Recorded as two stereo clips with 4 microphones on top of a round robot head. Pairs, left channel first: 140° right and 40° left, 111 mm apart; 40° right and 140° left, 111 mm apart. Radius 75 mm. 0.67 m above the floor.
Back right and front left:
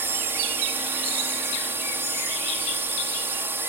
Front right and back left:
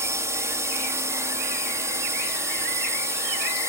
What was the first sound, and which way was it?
A drone, 95° left.